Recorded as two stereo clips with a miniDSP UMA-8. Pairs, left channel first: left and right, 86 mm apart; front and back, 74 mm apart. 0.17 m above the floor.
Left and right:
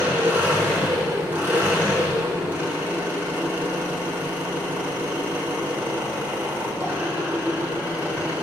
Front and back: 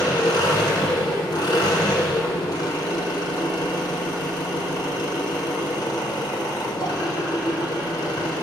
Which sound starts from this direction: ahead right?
An engine running, at 0.0 s.